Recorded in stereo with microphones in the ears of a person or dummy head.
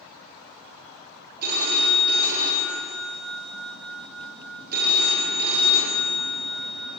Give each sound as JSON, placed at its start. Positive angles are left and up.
{"t": 1.4, "sound": "a phone ringing", "side_deg": -50, "distance_m": 1.3}